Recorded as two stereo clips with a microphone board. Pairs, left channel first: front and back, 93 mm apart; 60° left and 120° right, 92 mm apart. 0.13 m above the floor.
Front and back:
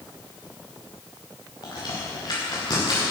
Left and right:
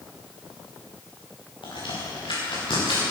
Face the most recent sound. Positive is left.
turn(degrees=40)